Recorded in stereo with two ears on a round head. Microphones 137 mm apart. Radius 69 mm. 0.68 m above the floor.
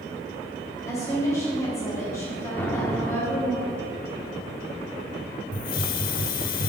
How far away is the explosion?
About 1.1 m.